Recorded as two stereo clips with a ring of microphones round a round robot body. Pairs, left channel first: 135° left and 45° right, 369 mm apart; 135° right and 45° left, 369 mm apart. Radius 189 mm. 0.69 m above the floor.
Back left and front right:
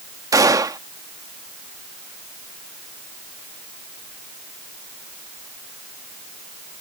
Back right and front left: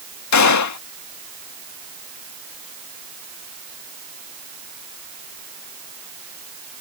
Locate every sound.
0.3 s a gunshot: 125° right